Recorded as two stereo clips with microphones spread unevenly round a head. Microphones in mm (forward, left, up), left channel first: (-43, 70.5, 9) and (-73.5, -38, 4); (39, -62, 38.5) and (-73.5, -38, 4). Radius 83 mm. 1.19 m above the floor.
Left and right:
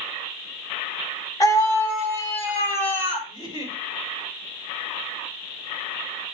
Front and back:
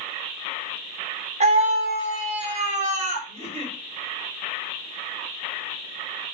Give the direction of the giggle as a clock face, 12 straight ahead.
8 o'clock.